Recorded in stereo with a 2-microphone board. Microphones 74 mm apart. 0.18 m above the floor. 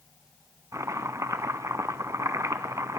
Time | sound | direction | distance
0.7 | chopping | 45° right (ahead or behind) | 0.5 m